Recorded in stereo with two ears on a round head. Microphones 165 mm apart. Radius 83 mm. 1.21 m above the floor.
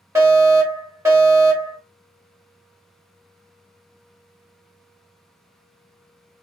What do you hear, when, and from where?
0.1 s a fire alarm: 15° right (ahead or behind), 1.8 m